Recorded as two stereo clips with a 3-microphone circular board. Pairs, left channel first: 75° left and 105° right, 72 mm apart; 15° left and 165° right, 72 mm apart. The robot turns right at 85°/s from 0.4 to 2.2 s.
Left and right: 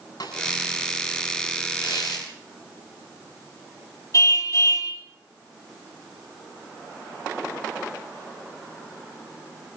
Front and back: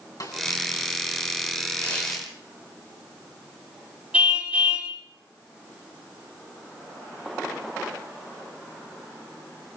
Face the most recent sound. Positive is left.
turn(degrees=120)